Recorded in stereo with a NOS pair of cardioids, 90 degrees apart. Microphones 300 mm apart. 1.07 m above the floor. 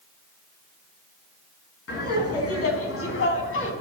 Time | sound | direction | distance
1.9 | laughter | 55° left | 8.5 m